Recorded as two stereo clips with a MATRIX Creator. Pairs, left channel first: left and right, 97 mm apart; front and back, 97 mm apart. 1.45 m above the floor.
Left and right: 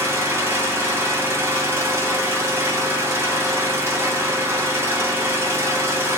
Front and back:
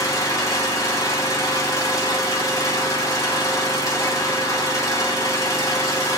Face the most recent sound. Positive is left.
turn(degrees=-40)